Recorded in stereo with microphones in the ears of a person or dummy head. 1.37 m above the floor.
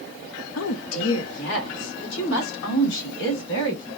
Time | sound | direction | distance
0.6 | a woman speaking | 75° left (ahead or behind) | 0.6 m